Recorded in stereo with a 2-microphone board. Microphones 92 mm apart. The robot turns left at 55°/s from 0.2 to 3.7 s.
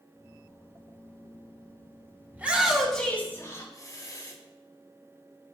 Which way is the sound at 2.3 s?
155° right.